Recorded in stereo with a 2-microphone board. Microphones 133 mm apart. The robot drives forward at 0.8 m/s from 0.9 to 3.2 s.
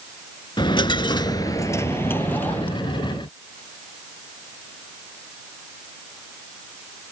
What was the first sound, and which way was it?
A dropped coin, 35° left (ahead or behind).